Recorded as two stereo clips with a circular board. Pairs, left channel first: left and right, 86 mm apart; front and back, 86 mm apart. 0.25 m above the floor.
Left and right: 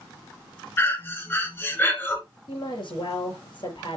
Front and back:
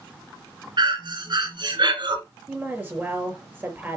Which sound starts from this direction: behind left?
Breathing, at 0.8 s.